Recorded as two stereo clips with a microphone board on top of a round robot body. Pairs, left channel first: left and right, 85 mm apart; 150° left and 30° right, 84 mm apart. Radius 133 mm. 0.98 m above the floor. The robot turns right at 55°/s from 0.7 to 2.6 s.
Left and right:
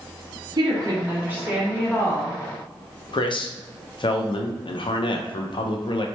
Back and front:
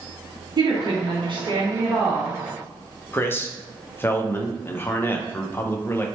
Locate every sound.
0.6 s a woman speaking: 55° right, 1.7 m; by 2.4 s 35° left, 1.7 m
3.1 s a man speaking: 90° left, 0.7 m